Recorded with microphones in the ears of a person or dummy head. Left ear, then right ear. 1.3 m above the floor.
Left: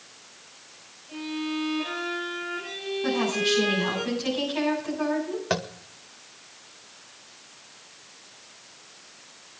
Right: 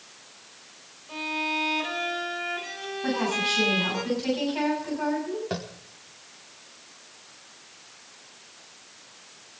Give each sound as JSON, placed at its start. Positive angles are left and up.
{"t": 1.1, "sound": "a violin", "side_deg": -50, "distance_m": 5.5}
{"t": 3.0, "sound": "a woman speaking", "side_deg": -5, "distance_m": 8.0}
{"t": 5.5, "sound": "tapping", "side_deg": 50, "distance_m": 1.3}